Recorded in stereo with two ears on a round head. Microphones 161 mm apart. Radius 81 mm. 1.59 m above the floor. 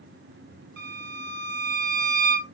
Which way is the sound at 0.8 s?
65° right (ahead or behind).